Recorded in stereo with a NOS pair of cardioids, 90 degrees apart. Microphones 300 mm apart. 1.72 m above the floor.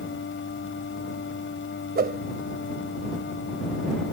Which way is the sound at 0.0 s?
40° left.